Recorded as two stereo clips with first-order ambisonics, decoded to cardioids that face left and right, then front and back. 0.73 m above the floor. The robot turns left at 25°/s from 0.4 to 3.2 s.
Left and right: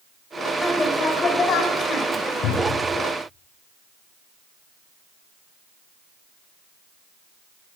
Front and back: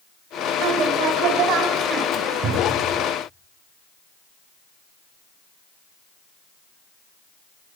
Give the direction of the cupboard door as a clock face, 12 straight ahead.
8 o'clock.